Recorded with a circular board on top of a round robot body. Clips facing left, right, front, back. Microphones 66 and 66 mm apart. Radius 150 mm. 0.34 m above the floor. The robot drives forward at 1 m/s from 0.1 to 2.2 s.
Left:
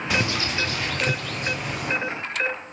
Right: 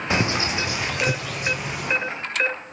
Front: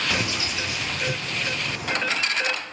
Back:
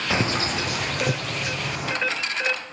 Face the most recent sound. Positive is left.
turn(degrees=-175)